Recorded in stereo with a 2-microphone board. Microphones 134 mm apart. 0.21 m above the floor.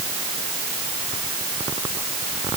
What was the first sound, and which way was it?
Only background noise.